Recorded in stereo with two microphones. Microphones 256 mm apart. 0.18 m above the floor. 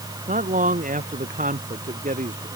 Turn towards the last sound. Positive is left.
turn(degrees=-30)  # may be behind; listen again after turning